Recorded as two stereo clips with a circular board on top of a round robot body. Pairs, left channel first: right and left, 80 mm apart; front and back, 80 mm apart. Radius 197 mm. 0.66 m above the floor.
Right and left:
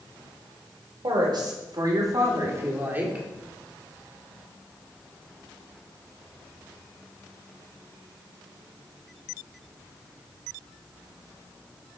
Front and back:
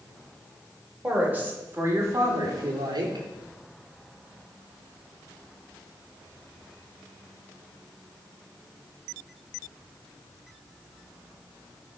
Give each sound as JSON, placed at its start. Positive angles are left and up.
{"t": 1.0, "sound": "a woman speaking", "azimuth_deg": 110, "distance_m": 3.0}